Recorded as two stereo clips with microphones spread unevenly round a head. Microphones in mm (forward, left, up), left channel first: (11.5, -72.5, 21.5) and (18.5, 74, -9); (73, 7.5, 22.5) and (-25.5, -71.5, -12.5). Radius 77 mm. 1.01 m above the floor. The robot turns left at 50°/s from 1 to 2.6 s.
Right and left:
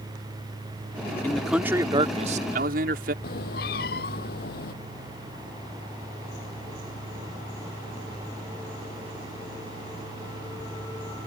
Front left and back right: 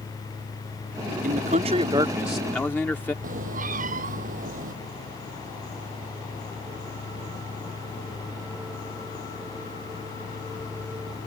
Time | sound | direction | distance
1.2 | a man speaking | 175° right | ?
3.2 | a cat meowing | 125° right | ?